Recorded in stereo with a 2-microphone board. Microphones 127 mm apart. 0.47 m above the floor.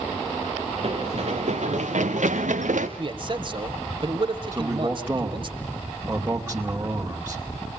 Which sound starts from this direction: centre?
A man speaking, at 4.5 s.